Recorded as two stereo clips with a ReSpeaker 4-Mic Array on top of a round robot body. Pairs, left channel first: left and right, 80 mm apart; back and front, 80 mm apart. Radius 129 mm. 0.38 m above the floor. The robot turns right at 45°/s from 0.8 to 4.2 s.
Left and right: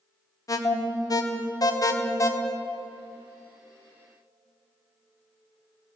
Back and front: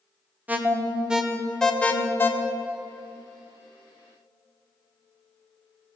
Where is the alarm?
65° left, 1.1 m; by 2.3 s 130° left, 1.1 m.